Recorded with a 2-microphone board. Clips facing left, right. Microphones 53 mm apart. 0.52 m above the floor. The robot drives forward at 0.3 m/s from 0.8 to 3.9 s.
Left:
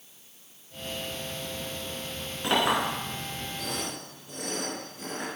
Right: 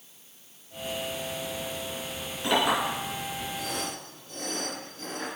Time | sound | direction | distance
2.4 | a clink | 15° left (ahead or behind) | 3 m